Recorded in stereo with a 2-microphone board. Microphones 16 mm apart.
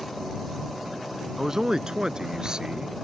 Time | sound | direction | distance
1.4 | a man speaking | 30° right (ahead or behind) | ?